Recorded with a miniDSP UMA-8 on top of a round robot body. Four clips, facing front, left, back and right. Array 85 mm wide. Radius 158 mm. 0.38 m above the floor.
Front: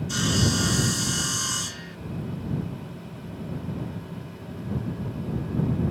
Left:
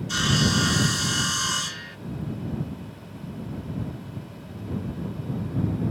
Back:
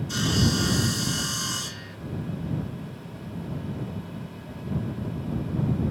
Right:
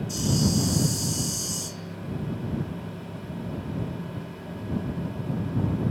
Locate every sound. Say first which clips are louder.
0.1 s sawing: left 2 dB, even; 85° left